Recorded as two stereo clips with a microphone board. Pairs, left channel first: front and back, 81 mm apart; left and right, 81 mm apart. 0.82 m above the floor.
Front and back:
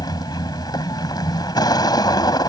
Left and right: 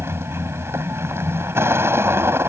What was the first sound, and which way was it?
A vehicle, 30° right.